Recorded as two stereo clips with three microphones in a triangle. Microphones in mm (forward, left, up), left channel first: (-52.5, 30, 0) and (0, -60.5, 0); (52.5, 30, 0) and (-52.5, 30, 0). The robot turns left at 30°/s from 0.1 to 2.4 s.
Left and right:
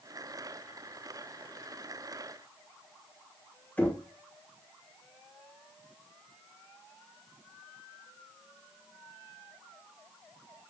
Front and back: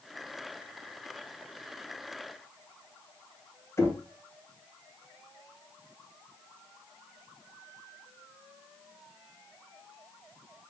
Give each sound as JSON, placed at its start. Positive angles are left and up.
{"t": 3.8, "sound": "knocking", "azimuth_deg": 50, "distance_m": 1.3}